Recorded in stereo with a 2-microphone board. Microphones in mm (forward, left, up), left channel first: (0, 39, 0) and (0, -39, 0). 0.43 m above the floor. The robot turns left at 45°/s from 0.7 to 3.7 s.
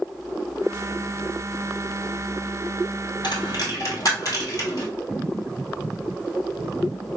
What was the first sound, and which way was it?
A dropped coin, 65° left (ahead or behind).